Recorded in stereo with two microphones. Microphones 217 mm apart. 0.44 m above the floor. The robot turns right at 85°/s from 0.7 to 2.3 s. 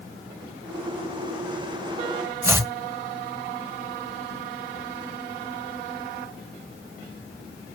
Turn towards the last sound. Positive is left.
turn(degrees=-15)  # may be behind; listen again after turning